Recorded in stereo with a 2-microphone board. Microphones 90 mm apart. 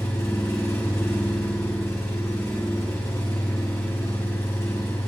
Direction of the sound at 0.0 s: 35° left (ahead or behind).